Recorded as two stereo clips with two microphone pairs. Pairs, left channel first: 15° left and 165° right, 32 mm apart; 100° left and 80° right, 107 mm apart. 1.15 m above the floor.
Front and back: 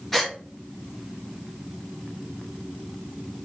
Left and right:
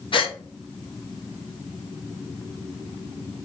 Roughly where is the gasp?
Left.